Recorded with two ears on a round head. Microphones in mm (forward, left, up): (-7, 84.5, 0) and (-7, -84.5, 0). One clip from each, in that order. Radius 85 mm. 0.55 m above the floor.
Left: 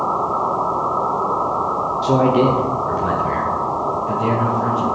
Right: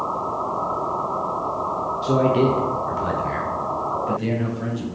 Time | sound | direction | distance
2.0 | a man speaking | 10° left (ahead or behind) | 1.0 m